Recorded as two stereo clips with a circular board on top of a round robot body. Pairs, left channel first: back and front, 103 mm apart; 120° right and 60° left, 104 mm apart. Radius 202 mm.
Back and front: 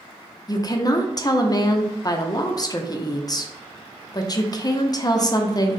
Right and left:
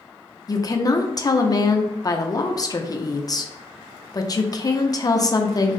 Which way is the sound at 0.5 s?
155° right.